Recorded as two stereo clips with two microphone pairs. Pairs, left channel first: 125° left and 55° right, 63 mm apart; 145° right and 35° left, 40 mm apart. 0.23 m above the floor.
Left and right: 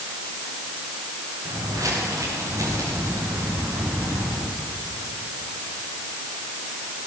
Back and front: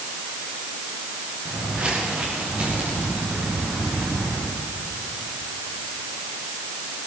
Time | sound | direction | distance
1.4 | footsteps | 30° right | 10 m